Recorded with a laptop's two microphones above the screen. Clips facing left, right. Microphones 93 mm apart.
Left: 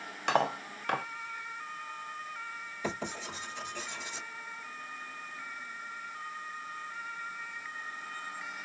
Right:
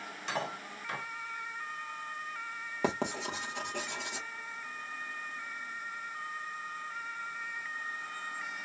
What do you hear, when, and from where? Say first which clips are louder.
0.3 s cutlery clinking: left 8 dB; 65° left (ahead or behind), 0.6 m
2.8 s writing: right 5 dB; 75° right (ahead or behind), 1.6 m